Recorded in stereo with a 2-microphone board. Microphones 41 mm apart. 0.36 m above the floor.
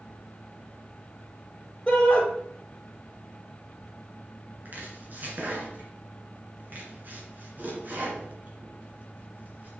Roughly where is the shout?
Centre.